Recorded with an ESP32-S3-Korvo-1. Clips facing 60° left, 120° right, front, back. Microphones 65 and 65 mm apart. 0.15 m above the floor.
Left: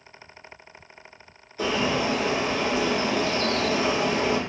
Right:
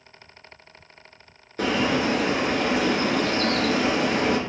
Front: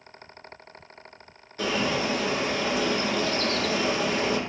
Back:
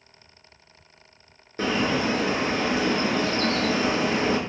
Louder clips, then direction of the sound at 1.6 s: Right 2 dB, back 2 dB; 135° right.